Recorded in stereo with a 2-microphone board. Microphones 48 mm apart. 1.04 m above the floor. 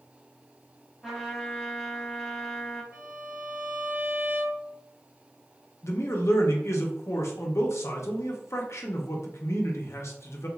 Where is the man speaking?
65° left (ahead or behind), 0.6 m.